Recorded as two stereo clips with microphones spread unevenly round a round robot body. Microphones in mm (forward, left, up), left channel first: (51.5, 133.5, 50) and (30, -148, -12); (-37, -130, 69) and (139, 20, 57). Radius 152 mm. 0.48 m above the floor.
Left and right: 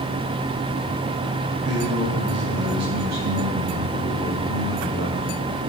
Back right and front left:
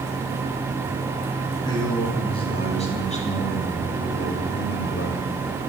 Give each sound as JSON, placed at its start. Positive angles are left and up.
{"t": 1.6, "sound": "a man speaking", "azimuth_deg": -65, "distance_m": 4.0}